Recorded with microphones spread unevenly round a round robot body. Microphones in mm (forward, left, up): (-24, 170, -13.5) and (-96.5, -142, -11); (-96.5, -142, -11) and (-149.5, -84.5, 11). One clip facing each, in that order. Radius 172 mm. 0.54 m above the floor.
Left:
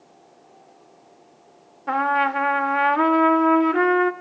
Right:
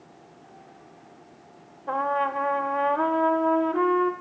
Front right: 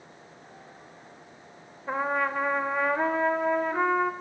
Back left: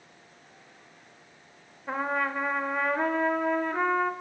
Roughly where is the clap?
No clap in this recording.